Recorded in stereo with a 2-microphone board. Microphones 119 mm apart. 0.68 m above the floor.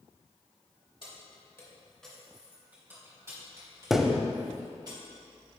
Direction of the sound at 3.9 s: Centre (ahead or behind).